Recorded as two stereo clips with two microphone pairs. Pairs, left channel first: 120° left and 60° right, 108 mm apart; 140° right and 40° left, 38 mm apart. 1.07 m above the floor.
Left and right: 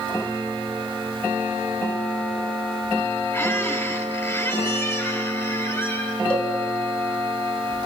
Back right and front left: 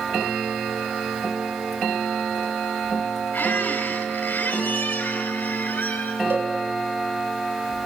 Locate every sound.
3.3 s a squeak: 175° right, 4 m
6.3 s a cowbell: 45° left, 2.5 m